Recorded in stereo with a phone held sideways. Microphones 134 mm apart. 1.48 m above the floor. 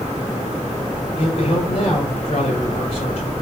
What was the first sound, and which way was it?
A man speaking, 50° left (ahead or behind).